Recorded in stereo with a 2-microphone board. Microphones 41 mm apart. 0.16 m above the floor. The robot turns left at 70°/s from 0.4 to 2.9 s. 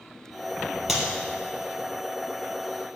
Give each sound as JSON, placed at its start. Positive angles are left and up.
{"t": 0.9, "sound": "a clap", "side_deg": -5, "distance_m": 3.0}